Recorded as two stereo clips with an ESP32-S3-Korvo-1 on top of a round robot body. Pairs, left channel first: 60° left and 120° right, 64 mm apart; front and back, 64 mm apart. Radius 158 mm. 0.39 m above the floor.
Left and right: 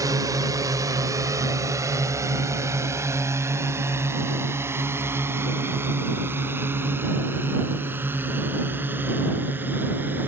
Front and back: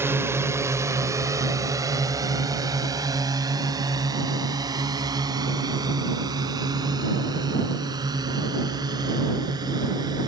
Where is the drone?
130° right; by 10.3 s straight behind.